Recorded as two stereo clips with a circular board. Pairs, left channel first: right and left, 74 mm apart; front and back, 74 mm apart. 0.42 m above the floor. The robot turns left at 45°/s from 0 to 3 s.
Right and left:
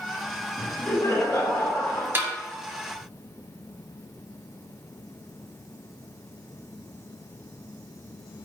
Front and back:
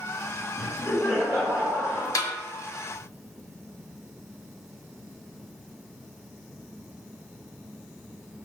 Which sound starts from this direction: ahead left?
A snare drum, at 2.1 s.